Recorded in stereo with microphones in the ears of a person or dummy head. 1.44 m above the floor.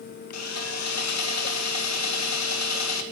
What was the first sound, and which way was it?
Sawing, 90° left.